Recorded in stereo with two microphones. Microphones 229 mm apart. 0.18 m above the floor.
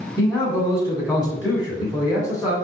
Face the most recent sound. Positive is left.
turn(degrees=15)  # may be behind; listen again after turning